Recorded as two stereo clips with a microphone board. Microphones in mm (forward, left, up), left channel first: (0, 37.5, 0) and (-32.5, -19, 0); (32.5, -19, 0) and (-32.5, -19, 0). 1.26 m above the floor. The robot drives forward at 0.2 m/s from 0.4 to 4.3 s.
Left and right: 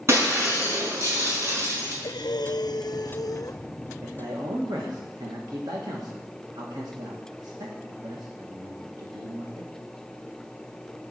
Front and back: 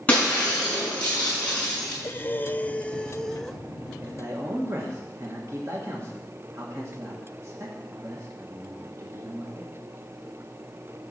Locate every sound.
0.1 s breaking glass: 70° right, 5.5 m
2.0 s breathing: 60° left, 0.6 m; by 3.6 s 90° left, 0.5 m
4.0 s a man speaking: 135° right, 1.6 m